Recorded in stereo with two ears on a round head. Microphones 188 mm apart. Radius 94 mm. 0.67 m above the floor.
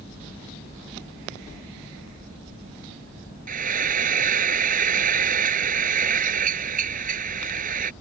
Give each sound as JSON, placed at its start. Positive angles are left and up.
{"t": 3.5, "sound": "frying", "side_deg": -45}